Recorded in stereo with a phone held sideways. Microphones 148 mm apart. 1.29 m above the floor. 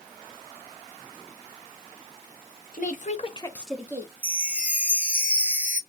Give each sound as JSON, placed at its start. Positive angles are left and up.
{"t": 2.7, "sound": "a woman speaking", "side_deg": 60, "distance_m": 0.8}
{"t": 4.2, "sound": "a chime", "side_deg": -10, "distance_m": 0.5}